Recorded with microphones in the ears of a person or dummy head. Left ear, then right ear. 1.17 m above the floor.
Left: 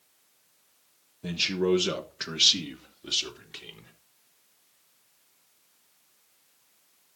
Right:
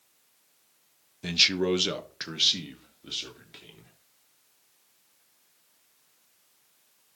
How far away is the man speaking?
About 1.1 m.